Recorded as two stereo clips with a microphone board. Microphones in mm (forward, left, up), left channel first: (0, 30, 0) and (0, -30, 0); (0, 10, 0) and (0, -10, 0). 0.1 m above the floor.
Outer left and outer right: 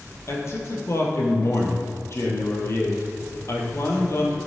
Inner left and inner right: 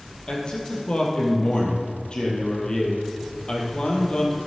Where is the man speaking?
50° left (ahead or behind), 2.5 m.